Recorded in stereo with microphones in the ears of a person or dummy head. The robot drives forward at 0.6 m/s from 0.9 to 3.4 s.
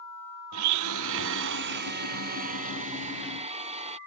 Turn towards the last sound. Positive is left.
turn(degrees=-30)  # may be behind; listen again after turning